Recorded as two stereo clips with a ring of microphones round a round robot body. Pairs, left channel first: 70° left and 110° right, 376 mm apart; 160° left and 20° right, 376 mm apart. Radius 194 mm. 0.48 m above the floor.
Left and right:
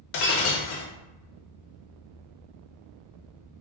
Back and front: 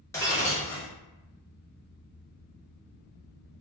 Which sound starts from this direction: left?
Breaking glass, at 0.1 s.